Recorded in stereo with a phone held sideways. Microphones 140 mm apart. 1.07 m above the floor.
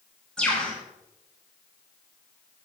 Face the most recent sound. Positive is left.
turn(degrees=5)  # may be behind; listen again after turning